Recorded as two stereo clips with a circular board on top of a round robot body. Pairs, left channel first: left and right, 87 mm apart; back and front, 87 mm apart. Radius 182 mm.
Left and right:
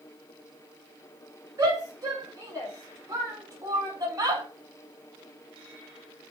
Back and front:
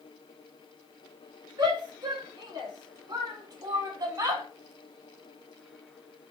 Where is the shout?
35° right, 7 m; by 4.4 s 40° right, 3 m.